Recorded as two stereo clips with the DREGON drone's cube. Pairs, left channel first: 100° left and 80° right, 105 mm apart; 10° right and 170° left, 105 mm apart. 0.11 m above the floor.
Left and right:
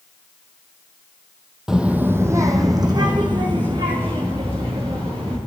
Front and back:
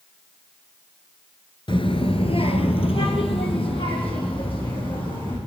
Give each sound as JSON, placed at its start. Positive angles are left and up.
{"t": 1.7, "sound": "a child speaking", "azimuth_deg": 5, "distance_m": 1.1}